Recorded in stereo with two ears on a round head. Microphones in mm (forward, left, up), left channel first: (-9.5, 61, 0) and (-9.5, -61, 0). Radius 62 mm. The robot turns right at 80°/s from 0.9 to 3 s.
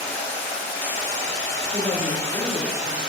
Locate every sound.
0.0 s running water: 50° left, 0.8 m; by 3.1 s 140° right, 0.8 m
1.7 s a woman speaking: 130° right, 1.4 m; by 3.1 s 25° right, 1.4 m